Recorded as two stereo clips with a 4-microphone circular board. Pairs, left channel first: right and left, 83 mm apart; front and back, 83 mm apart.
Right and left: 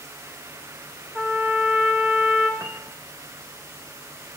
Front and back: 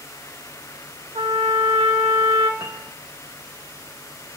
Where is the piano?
150° left, 0.8 m.